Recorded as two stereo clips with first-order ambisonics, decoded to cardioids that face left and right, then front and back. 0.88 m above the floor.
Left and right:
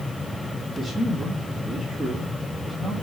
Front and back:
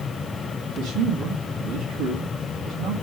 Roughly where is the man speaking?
Behind.